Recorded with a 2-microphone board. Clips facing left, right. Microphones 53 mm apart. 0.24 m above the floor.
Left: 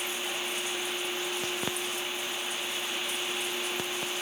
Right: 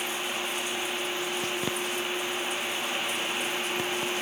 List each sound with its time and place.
Only background noise.